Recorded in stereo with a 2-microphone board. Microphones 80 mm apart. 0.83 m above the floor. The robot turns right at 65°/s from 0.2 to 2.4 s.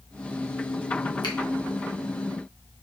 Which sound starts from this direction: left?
A finger snap, at 1.2 s.